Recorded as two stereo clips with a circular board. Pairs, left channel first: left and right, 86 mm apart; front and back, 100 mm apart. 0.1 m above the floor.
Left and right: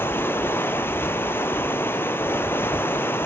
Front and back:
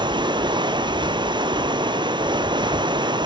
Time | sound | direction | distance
0.0 | running water | 150° left | 0.7 m